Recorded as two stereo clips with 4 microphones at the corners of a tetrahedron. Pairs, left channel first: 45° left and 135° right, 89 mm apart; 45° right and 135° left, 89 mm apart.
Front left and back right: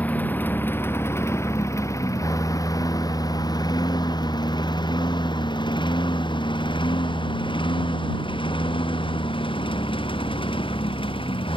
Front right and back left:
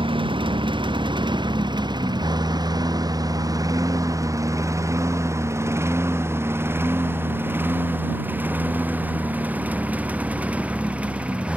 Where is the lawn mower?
115° left; by 11.6 s 60° left.